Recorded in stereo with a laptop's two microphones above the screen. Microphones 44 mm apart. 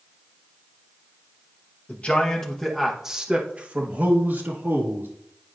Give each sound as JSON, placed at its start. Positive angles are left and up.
{"t": 1.9, "sound": "a man speaking", "side_deg": 30, "distance_m": 1.2}